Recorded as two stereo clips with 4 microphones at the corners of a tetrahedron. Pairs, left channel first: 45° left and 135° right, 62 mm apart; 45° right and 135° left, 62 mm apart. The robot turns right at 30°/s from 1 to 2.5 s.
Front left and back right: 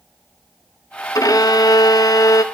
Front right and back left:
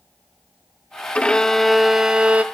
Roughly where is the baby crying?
No baby crying in this recording.